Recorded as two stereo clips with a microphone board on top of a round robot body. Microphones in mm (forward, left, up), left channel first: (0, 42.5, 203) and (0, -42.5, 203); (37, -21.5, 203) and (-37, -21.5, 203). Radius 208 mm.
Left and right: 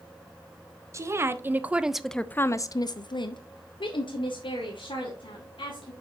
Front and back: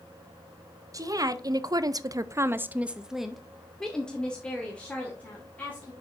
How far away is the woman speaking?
About 1.0 m.